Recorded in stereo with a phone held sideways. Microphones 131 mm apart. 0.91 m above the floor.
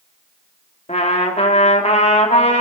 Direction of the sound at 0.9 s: 55° left (ahead or behind).